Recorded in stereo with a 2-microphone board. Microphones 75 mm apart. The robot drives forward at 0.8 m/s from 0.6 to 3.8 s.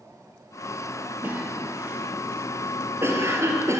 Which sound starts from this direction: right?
A cough, at 1.2 s.